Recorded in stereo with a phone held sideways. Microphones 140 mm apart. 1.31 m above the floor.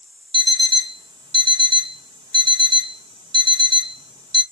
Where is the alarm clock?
35° right (ahead or behind), 0.6 m.